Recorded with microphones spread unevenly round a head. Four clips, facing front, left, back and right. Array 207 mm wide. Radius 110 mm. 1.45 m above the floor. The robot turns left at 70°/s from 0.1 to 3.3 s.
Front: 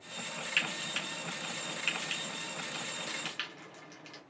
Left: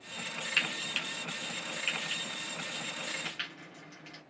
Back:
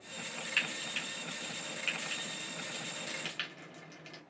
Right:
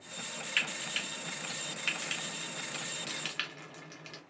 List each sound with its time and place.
0.6 s frying: 50° left, 0.9 m; by 4.2 s 140° right, 0.9 m